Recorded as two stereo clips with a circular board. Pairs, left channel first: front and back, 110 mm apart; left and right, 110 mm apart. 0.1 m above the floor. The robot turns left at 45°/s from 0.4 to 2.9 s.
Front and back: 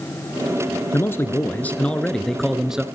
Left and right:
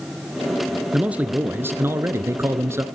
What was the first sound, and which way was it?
A man speaking, 25° right.